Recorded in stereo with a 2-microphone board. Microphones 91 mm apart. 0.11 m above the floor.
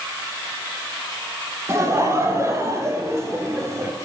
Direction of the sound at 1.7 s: 30° right (ahead or behind).